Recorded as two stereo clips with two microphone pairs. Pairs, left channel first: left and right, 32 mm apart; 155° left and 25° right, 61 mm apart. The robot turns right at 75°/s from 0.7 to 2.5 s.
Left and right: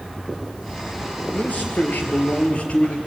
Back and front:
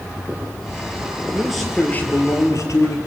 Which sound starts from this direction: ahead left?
A man speaking, at 1.3 s.